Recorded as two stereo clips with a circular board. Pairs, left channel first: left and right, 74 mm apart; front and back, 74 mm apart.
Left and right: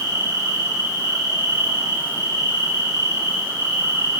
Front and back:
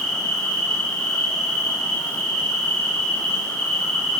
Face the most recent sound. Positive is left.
turn(degrees=-75)